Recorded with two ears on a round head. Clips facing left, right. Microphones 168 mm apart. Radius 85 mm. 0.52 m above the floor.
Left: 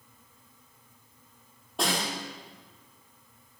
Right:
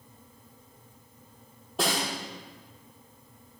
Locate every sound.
1.8 s a snare drum: centre (ahead or behind), 7.5 m